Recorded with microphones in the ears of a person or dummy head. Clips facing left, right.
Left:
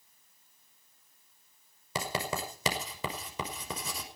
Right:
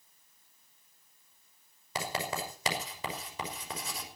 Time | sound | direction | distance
1.9 | writing | 90° left | 5.5 m